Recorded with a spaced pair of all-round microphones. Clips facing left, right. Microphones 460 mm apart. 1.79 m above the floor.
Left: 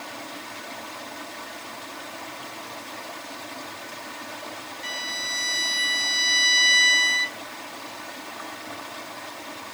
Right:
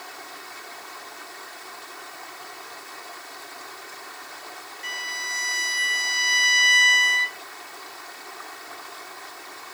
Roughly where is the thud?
No thud in this recording.